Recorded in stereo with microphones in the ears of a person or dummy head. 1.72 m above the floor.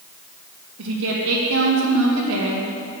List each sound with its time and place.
0.8 s a woman speaking: 85° right, 3 m